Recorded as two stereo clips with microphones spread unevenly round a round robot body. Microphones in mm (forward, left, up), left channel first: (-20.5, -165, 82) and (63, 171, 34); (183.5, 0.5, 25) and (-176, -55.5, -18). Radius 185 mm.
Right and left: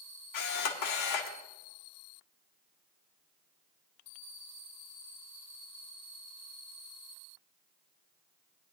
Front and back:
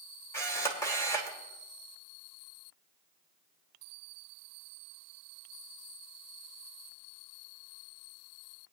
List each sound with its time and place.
0.3 s a camera shutter: 75° right, 1.6 m